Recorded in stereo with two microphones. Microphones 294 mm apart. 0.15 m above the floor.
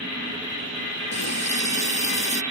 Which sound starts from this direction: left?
A running tap, at 1.1 s.